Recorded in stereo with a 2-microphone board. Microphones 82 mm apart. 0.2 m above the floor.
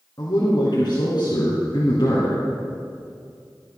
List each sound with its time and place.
0.2 s a man speaking: 55° left (ahead or behind), 3 m